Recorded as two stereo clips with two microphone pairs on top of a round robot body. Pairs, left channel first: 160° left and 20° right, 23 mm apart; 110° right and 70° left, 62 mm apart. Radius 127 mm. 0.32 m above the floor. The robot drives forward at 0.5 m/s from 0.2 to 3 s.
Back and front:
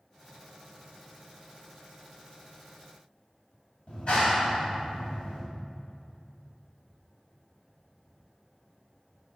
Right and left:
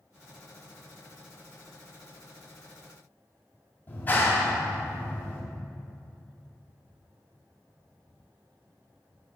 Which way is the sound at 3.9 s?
160° right.